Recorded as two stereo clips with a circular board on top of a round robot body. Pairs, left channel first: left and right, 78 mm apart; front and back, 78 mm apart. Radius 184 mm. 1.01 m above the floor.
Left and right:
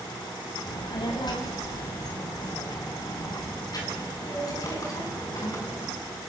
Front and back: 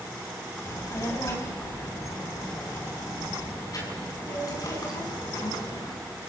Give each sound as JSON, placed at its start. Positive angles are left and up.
{"t": 0.7, "sound": "a child speaking", "azimuth_deg": 60, "distance_m": 4.5}